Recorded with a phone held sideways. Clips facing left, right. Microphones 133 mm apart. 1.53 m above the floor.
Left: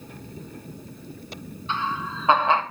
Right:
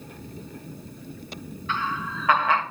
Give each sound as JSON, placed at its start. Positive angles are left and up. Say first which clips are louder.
{"t": 1.7, "sound": "laughter", "louder": "left 1 dB", "side_deg": 25, "distance_m": 1.6}